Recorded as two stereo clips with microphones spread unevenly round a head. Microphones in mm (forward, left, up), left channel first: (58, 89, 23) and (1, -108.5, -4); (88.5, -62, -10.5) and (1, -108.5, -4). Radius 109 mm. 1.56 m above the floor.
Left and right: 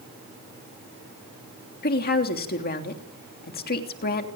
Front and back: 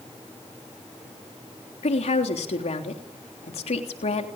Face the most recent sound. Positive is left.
turn(degrees=30)